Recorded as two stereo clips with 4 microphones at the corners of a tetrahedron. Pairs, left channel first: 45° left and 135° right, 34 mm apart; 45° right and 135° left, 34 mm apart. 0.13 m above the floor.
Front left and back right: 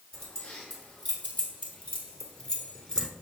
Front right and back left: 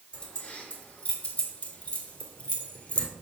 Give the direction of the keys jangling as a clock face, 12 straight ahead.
12 o'clock.